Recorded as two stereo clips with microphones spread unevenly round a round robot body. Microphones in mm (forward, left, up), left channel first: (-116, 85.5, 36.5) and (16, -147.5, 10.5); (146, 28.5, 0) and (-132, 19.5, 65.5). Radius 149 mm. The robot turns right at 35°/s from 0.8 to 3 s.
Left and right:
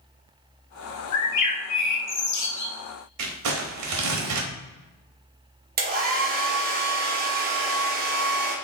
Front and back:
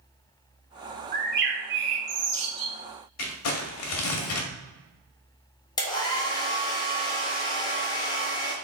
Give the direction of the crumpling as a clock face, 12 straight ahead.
1 o'clock.